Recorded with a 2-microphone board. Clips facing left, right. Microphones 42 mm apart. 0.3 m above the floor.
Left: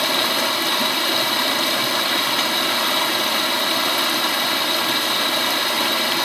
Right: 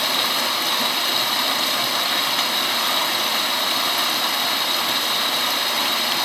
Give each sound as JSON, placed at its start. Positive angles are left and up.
{"t": 0.0, "sound": "running water", "side_deg": 5, "distance_m": 0.7}